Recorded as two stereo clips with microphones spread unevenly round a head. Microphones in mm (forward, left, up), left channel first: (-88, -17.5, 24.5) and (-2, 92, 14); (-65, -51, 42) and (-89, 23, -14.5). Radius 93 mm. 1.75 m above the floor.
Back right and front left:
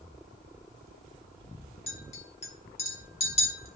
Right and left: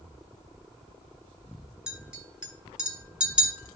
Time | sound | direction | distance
1.9 | a clink | 155° right | 1.7 m